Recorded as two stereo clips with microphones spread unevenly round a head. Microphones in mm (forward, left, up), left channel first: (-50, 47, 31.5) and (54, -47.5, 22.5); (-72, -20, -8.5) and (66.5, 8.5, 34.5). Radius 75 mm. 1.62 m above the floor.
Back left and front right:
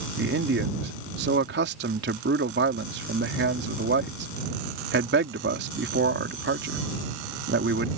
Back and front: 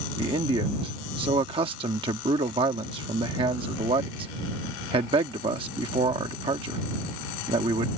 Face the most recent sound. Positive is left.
turn(degrees=-40)